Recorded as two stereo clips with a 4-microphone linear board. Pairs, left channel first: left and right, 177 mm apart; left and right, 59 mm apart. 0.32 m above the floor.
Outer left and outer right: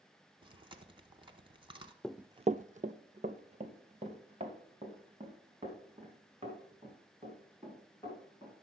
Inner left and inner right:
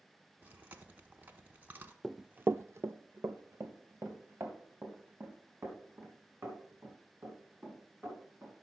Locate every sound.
0.4 s chewing: 30° right (ahead or behind), 0.9 m
2.0 s running footsteps: 5° left (ahead or behind), 0.5 m; by 8.5 s 30° right (ahead or behind), 7.5 m